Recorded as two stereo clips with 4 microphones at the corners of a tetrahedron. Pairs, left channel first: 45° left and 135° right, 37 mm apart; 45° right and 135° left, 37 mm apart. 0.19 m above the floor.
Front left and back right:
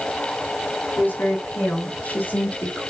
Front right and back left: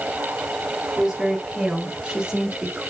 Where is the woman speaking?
70° left, 4.5 m; by 2.9 s 80° left, 3 m.